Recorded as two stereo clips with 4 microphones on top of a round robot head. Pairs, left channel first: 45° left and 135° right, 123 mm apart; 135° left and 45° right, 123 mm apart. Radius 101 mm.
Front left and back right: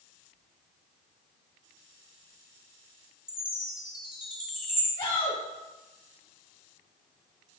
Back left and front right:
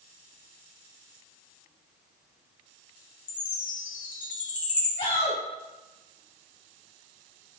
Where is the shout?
100° left, 2.5 m.